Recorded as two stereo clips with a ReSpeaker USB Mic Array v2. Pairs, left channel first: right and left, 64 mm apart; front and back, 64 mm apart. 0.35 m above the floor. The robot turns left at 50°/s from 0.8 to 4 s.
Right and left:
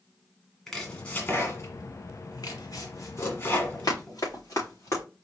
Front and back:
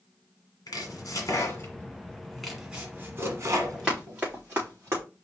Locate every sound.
0.7 s chopping: 5° right, 1.5 m; by 4.2 s 165° right, 1.5 m
3.5 s running footsteps: 85° right, 3.5 m; by 5.0 s 130° right, 3.5 m